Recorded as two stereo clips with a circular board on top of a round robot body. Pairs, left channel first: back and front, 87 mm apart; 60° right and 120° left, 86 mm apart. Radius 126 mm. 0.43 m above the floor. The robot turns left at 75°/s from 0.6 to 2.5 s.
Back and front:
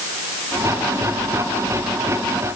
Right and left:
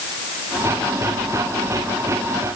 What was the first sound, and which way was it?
Only background noise.